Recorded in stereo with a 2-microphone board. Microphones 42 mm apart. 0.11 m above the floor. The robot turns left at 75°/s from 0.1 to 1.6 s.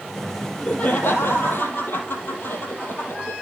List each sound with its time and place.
0.4 s laughter: 165° left, 3.5 m; by 3.3 s 75° left, 3.5 m